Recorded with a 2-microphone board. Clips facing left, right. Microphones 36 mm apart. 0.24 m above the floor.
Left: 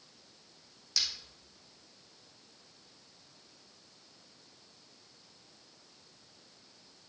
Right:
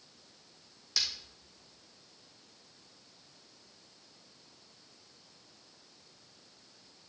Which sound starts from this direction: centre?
Breaking glass, at 1.0 s.